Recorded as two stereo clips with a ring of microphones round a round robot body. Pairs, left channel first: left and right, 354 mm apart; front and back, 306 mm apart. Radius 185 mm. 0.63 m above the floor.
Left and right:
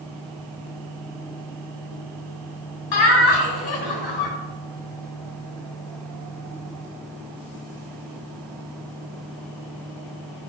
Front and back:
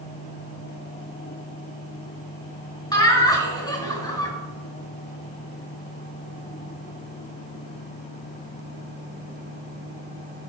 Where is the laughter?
75° left, 3.5 m.